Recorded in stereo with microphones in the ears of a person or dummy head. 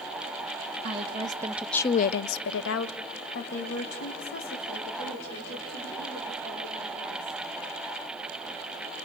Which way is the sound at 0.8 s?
40° right (ahead or behind).